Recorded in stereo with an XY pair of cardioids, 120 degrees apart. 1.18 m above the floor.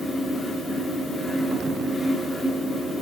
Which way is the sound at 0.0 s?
20° left.